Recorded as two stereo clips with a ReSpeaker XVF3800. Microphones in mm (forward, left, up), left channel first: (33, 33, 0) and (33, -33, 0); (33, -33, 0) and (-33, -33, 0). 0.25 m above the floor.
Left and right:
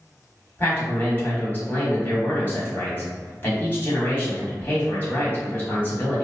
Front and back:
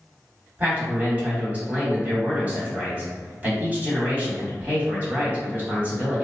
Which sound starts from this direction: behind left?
A man speaking, at 0.6 s.